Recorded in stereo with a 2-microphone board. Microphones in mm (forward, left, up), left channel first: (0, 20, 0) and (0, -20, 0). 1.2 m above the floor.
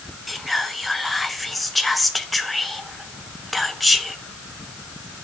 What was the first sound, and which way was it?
Whispering, centre (ahead or behind).